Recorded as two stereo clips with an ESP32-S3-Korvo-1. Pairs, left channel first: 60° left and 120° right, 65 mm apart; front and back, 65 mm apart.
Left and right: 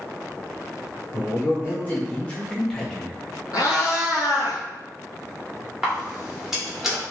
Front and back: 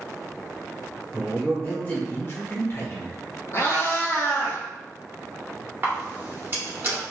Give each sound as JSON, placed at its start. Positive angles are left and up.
{"t": 1.1, "sound": "a man speaking", "azimuth_deg": 65, "distance_m": 1.1}
{"t": 3.5, "sound": "a cat meowing", "azimuth_deg": 40, "distance_m": 1.3}
{"t": 5.8, "sound": "a camera shutter", "azimuth_deg": 160, "distance_m": 1.0}